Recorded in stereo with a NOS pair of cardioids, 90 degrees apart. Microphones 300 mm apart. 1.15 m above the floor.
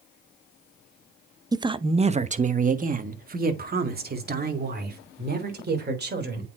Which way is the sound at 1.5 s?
10° right.